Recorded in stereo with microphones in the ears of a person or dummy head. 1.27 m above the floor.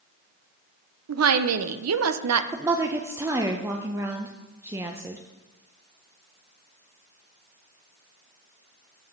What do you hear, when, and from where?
1.1 s a woman speaking: 80° right, 0.6 m
2.5 s a woman speaking: 15° right (ahead or behind), 0.5 m